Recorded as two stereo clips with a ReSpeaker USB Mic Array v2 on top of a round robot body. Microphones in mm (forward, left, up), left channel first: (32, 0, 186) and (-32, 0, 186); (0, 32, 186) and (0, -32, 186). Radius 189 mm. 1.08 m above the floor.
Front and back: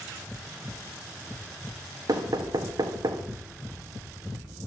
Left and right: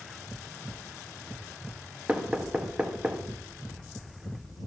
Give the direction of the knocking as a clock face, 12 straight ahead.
6 o'clock.